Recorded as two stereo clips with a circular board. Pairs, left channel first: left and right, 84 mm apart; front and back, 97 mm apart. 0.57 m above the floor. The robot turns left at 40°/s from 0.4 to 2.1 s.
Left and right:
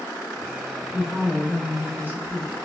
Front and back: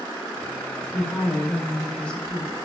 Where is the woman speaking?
15° right, 0.6 m; by 2.5 s 65° right, 0.6 m.